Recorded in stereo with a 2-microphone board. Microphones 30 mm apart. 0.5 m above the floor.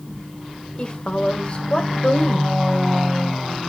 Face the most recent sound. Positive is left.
turn(degrees=35)  # may be behind; listen again after turning